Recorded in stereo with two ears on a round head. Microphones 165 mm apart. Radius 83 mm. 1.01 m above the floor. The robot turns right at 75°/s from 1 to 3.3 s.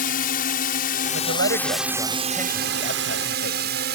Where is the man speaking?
85° right; by 3.9 s 75° left.